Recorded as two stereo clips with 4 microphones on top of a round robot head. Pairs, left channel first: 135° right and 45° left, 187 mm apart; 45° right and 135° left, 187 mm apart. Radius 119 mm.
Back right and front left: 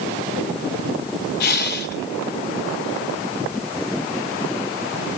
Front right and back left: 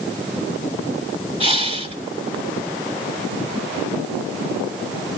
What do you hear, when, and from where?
1.4 s breathing: 165° right, 5 m